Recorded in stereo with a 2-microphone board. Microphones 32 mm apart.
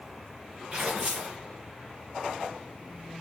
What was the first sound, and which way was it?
Tearing paper, 25° right (ahead or behind).